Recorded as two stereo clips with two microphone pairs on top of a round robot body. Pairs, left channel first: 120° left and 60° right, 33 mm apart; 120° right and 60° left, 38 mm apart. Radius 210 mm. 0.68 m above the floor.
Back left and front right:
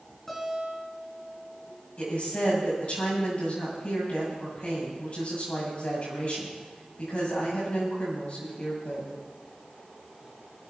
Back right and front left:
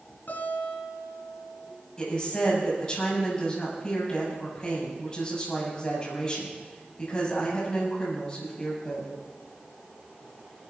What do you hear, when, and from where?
0.3 s a guitar: 155° right, 2 m
2.0 s a woman speaking: 170° left, 7.5 m